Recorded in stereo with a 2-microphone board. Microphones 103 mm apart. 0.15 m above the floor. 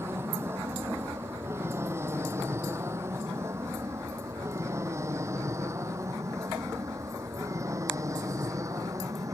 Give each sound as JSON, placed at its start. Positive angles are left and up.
{"t": 0.0, "sound": "an aircraft", "side_deg": -25}